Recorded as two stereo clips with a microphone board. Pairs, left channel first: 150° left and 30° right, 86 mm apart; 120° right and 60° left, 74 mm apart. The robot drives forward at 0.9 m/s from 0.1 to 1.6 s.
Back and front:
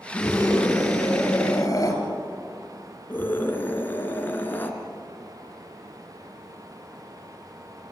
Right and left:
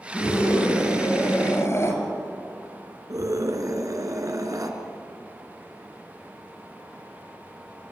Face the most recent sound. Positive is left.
turn(degrees=90)